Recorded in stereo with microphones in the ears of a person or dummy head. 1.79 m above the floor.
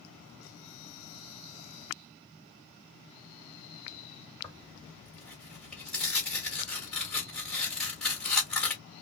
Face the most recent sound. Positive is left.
turn(degrees=10)  # may be behind; listen again after turning